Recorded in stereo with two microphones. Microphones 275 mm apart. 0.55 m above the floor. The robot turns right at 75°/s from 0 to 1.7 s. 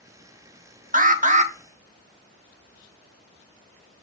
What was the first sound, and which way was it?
An alarm, 95° right.